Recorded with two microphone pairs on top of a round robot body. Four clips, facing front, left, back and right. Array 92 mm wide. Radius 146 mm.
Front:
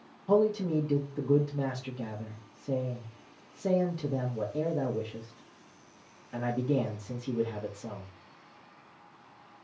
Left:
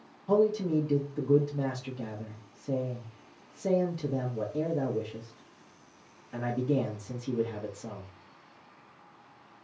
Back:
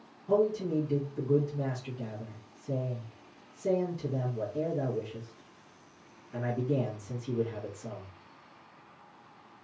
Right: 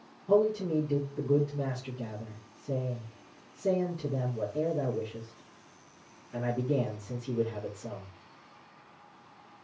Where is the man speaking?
45° left, 1.4 m.